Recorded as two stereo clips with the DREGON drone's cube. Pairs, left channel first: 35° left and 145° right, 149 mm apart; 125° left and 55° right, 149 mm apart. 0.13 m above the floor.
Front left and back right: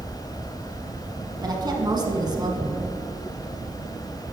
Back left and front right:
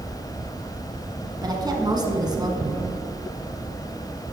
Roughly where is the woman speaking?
Right.